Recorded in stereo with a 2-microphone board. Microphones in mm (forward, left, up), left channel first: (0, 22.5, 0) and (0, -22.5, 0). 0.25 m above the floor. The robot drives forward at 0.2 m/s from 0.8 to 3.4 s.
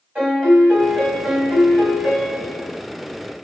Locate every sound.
0.1 s a piano: 30° right (ahead or behind), 1.7 m